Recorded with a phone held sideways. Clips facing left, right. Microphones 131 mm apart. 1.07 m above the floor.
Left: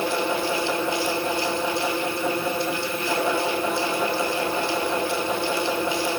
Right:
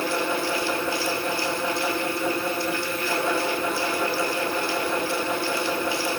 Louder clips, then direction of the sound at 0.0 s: Left 1 dB; 20° left (ahead or behind).